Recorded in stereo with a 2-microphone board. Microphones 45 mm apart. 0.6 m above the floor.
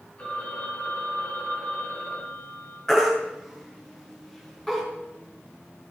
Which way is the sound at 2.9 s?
10° left (ahead or behind).